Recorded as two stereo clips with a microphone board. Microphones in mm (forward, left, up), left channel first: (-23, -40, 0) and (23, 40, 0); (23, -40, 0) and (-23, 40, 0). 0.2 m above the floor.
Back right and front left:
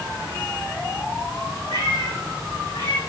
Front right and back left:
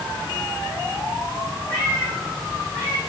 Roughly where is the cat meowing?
Behind right.